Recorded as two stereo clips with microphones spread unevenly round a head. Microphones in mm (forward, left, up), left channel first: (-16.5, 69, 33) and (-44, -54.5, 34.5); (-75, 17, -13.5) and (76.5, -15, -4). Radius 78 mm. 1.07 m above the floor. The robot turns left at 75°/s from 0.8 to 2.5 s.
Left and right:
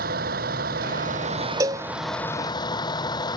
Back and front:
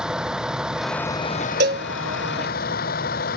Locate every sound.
0.0 s a vehicle: 100° right; by 3.4 s 135° left
1.6 s a cowbell: 35° right; by 1.9 s 55° right